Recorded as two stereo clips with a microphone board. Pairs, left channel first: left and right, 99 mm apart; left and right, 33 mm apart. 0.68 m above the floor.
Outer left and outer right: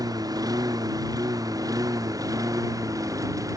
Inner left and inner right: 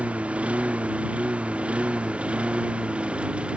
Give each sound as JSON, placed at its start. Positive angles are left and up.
{"t": 0.0, "sound": "a lawn mower", "side_deg": -40}